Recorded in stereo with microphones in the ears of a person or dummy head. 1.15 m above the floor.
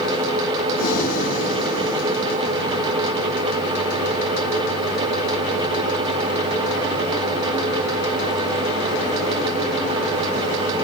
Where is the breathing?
55° left (ahead or behind), 1.8 m.